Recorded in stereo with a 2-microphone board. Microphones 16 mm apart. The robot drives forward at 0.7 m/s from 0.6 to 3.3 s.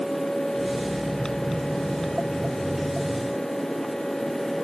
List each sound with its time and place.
Only background noise.